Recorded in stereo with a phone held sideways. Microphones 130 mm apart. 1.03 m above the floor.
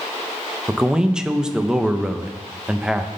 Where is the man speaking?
5° right (ahead or behind), 0.6 m.